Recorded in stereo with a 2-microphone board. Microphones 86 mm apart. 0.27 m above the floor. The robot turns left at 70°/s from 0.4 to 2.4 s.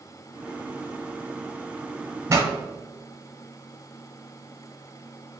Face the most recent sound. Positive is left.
turn(degrees=-30)  # may be behind; listen again after turning